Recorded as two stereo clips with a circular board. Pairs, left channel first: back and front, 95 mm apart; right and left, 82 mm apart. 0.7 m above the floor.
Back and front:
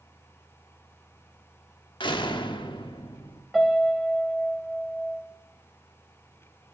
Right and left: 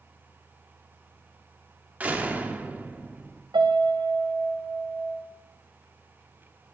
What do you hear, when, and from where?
2.0 s a door slam: 160° left, 1.1 m
3.5 s a piano: 85° left, 1.9 m